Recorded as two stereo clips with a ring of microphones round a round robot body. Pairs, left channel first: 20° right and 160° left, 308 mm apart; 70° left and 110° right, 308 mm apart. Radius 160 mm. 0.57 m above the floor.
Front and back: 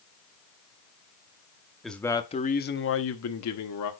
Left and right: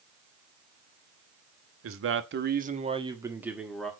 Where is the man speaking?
110° right, 1.0 m; by 3.9 s 20° right, 1.4 m.